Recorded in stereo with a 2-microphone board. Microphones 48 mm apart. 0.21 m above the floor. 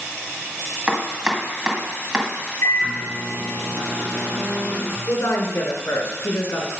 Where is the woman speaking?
65° left (ahead or behind), 2.5 m.